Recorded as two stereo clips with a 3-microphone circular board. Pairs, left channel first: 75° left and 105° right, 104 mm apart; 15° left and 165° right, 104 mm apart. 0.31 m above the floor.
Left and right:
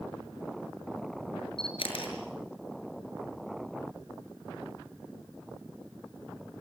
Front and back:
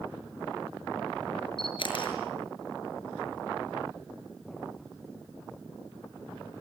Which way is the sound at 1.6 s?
50° left.